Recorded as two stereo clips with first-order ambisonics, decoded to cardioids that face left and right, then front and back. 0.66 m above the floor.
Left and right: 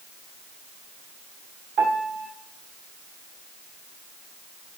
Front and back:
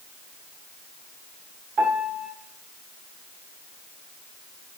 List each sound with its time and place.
1.8 s a piano: 125° right, 1.7 m